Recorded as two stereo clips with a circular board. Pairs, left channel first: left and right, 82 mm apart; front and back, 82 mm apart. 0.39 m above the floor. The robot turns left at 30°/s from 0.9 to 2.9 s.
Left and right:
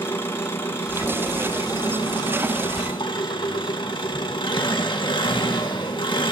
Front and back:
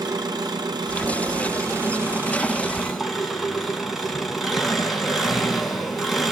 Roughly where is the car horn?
No car horn in this recording.